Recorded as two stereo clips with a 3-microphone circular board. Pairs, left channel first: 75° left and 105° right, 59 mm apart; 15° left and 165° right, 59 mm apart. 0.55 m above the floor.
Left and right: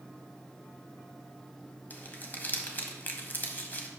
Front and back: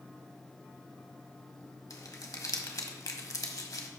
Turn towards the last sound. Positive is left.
turn(degrees=15)